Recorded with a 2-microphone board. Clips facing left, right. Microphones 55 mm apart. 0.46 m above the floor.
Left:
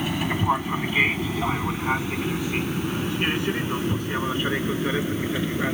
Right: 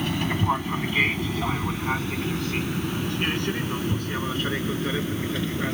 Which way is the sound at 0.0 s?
5° left (ahead or behind).